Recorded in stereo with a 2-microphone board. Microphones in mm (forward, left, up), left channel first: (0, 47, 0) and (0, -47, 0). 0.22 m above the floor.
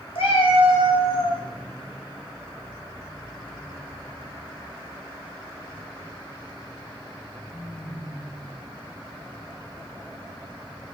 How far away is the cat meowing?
About 0.6 m.